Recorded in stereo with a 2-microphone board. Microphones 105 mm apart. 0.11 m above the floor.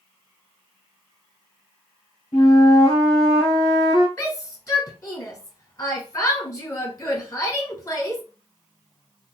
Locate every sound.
2.3 s a flute: 60° left (ahead or behind), 2 m
4.2 s a shout: 30° left (ahead or behind), 1.3 m